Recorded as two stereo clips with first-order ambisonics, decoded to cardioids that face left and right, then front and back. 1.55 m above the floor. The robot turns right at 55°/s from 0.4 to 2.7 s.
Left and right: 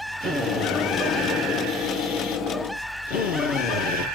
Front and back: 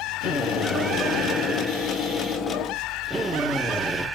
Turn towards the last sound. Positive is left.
turn(degrees=85)